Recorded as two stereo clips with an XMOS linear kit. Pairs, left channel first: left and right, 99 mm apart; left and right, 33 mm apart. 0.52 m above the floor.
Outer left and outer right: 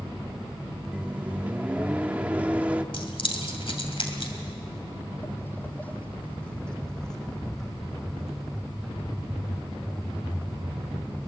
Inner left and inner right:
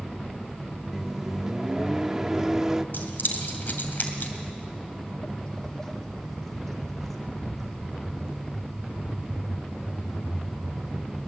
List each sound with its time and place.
0.9 s a microwave: 15° right (ahead or behind), 0.7 m
2.9 s keys jangling: 65° left (ahead or behind), 2.5 m
4.4 s footsteps: 45° left (ahead or behind), 0.8 m; by 11.3 s 5° right (ahead or behind), 5 m